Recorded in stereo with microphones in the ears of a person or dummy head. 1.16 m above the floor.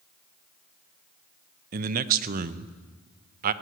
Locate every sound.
1.7 s a man speaking: 50° right (ahead or behind), 0.7 m